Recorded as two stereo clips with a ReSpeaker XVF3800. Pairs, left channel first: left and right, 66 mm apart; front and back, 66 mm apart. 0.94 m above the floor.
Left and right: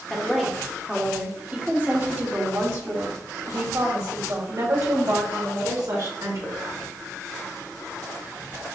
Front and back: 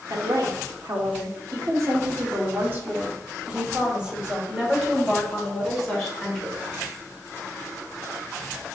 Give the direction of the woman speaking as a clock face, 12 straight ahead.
6 o'clock.